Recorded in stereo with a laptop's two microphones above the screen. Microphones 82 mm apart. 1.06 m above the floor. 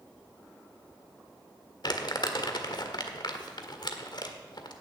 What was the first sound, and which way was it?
Crumpling, 60° left (ahead or behind).